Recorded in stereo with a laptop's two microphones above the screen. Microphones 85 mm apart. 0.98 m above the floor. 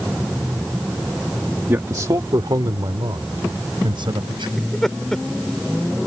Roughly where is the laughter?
Centre.